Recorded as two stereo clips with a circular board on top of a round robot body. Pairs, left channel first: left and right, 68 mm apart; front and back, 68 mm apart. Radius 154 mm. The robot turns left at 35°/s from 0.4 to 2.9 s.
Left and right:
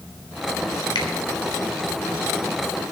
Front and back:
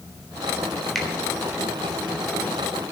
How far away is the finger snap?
About 3.5 m.